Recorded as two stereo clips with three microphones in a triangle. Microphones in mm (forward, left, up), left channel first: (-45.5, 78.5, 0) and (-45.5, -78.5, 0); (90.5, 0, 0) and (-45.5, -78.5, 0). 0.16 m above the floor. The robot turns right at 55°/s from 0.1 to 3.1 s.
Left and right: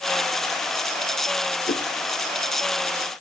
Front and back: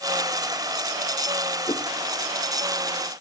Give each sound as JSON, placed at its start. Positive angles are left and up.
{"t": 1.7, "sound": "a whoosh", "azimuth_deg": 95, "distance_m": 1.6}